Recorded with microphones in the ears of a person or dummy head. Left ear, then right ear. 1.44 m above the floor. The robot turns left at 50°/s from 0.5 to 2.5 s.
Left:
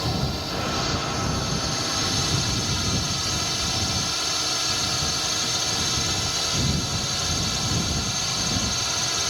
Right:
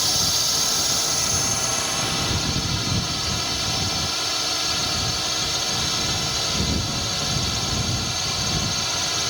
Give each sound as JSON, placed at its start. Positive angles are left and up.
{"t": 0.0, "sound": "a drone", "azimuth_deg": -75}